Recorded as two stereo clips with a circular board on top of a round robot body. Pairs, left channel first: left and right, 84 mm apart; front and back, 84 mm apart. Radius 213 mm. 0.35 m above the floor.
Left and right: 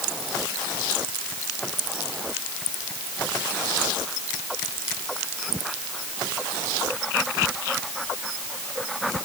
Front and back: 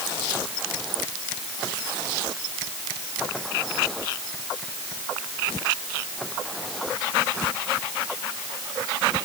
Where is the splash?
I don't hear a splash.